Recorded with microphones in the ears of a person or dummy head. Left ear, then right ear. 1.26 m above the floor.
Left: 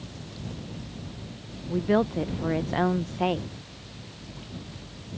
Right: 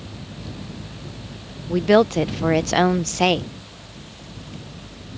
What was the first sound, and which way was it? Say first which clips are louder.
A woman speaking: right 9 dB; 75° right (ahead or behind).